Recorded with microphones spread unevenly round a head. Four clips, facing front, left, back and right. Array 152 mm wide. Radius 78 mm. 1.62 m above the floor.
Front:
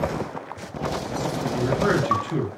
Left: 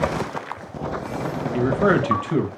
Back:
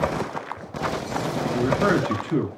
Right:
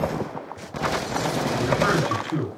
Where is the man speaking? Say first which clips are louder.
Left 5 dB, back 1 dB; 105° left, 1.9 m.